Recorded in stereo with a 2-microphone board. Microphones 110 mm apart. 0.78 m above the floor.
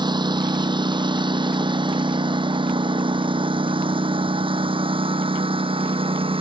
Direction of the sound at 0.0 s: 40° right (ahead or behind).